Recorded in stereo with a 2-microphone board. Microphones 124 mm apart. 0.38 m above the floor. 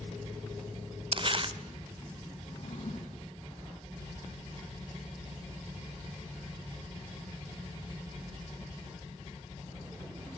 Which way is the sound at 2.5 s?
50° left (ahead or behind).